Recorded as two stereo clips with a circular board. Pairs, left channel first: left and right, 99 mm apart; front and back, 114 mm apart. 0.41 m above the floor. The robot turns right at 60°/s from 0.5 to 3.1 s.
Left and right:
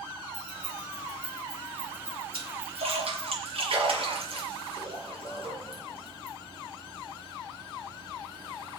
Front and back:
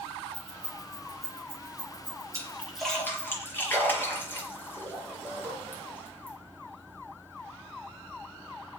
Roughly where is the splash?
Behind right.